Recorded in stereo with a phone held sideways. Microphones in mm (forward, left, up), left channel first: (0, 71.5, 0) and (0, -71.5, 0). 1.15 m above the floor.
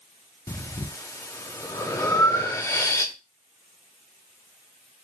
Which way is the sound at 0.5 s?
20° left (ahead or behind).